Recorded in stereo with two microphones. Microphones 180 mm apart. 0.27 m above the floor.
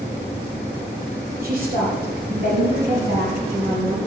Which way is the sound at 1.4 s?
55° right (ahead or behind).